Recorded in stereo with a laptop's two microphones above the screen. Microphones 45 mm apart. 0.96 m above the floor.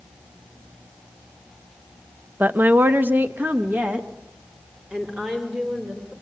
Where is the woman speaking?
40° right (ahead or behind), 1.0 m; by 6.1 s 25° right (ahead or behind), 4 m.